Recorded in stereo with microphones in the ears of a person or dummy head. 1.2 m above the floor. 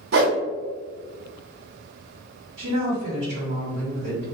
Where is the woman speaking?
50° right (ahead or behind), 1.9 m.